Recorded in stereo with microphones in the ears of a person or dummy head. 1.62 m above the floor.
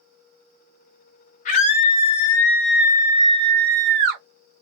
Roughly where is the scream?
Left.